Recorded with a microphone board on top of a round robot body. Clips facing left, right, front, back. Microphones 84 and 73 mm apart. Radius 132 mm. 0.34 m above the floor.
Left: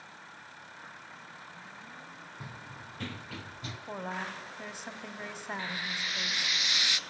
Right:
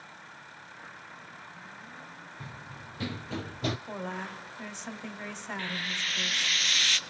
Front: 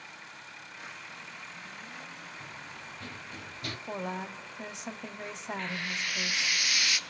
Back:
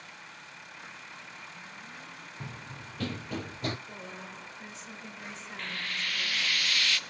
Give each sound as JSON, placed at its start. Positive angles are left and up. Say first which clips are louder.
{"t": 2.4, "sound": "running footsteps", "louder": "right 1 dB, back 1 dB", "azimuth_deg": 170, "distance_m": 1.1}
{"t": 3.9, "sound": "a woman speaking", "louder": "even, front 7 dB", "azimuth_deg": 10, "distance_m": 2.5}
{"t": 5.6, "sound": "frying", "louder": "right 3 dB, back 1 dB", "azimuth_deg": 45, "distance_m": 1.3}